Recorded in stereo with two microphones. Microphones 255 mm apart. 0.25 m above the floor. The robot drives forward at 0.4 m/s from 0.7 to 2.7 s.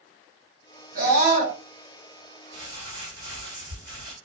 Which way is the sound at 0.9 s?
35° right (ahead or behind).